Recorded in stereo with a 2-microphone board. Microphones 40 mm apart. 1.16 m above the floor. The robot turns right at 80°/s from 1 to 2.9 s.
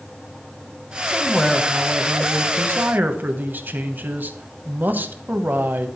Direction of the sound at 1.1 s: 160° left.